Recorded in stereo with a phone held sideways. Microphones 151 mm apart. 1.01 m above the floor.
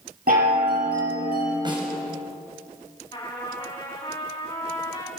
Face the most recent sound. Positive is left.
turn(degrees=25)  # may be behind; listen again after turning